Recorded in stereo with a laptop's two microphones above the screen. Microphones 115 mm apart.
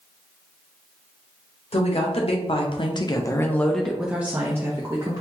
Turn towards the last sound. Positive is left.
turn(degrees=-30)  # may be behind; listen again after turning